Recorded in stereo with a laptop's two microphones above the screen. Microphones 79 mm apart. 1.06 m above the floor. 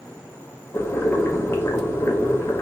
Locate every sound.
0.7 s boiling: 30° left (ahead or behind), 0.7 m